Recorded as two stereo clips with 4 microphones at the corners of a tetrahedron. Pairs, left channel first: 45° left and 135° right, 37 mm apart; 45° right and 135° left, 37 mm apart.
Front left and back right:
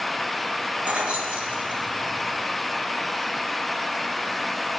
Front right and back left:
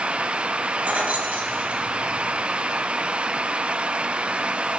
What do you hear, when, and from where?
0.8 s keys jangling: 175° left, 1.2 m